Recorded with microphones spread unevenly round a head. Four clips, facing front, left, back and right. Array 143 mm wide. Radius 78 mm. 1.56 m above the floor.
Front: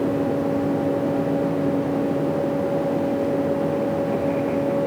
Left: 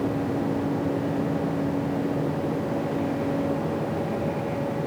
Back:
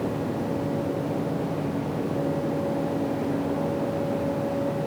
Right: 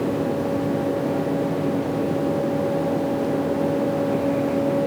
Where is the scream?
I don't hear a scream.